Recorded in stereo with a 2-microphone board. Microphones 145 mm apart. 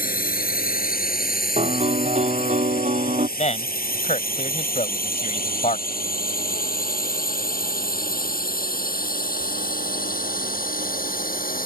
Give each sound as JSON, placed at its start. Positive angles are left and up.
{"t": 0.0, "sound": "a drone", "side_deg": 75}
{"t": 1.6, "sound": "a piano", "side_deg": -50}
{"t": 3.4, "sound": "a man speaking", "side_deg": 50}